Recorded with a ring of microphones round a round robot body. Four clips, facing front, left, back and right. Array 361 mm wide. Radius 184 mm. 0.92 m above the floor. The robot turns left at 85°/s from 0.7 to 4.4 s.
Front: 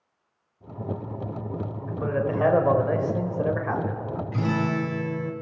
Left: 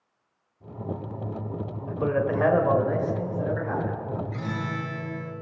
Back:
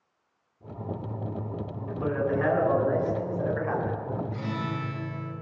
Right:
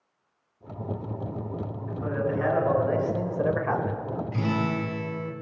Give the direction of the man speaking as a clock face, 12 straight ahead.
9 o'clock.